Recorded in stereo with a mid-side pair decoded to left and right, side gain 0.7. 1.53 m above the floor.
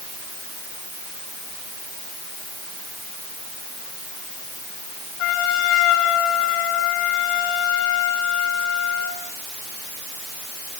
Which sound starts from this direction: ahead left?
A trumpet, at 5.2 s.